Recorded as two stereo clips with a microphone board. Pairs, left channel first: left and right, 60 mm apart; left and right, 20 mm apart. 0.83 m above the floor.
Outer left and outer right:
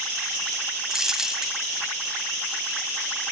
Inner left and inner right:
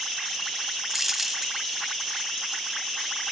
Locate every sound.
0.9 s a dropped coin: 10° right (ahead or behind)